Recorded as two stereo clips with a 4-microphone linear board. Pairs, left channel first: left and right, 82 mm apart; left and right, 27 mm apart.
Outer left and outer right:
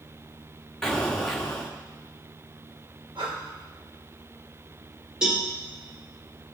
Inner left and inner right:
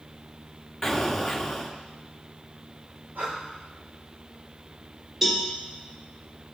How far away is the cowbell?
About 2 m.